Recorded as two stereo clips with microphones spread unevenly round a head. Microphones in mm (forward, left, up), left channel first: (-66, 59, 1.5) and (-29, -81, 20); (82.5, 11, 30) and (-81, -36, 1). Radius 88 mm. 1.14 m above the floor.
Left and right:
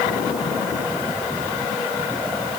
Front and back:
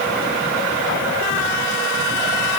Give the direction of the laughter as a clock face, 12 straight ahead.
No laughter in this recording.